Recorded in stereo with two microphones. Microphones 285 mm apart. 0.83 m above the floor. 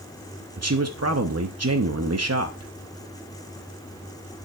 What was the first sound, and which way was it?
A man speaking, 55° right (ahead or behind).